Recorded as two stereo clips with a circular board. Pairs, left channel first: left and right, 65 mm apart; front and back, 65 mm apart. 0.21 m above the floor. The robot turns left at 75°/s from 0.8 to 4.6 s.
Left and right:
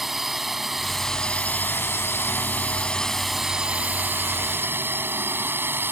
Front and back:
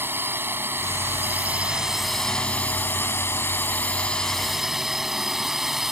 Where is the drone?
175° right; by 5.9 s 100° right.